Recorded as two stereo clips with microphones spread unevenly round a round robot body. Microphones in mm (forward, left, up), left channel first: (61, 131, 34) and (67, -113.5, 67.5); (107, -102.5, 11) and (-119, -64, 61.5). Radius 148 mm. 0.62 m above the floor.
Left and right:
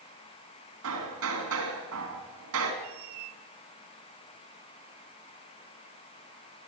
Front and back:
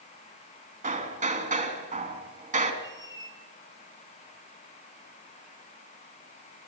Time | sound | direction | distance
0.8 | hammering | 135° right | 3.5 m
2.8 | a squeak | 85° right | 2 m